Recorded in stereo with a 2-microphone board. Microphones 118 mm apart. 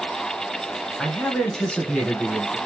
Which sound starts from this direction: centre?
A man speaking, at 1.0 s.